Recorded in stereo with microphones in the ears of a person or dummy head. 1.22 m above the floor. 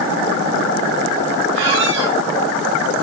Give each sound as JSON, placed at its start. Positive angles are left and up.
{"t": 1.6, "sound": "a squeak", "side_deg": -65, "distance_m": 2.5}